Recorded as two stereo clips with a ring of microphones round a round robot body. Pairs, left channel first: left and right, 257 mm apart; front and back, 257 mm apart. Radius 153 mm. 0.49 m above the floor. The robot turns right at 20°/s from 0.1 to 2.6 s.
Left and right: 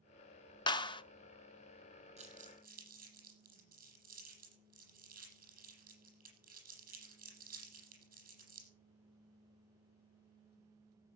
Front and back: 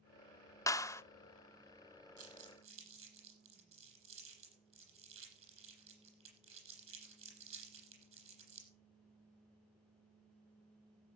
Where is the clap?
55° left, 0.7 m; by 1.0 s 60° left, 0.7 m.